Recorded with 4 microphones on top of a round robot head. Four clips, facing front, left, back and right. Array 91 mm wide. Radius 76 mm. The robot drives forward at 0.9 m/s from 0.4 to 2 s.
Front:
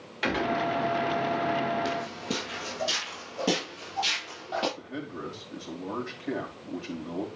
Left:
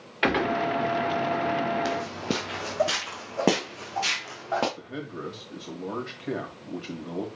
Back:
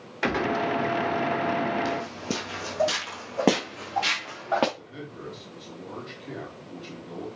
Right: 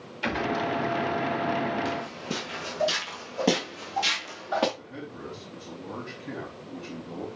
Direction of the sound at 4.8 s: 65° left.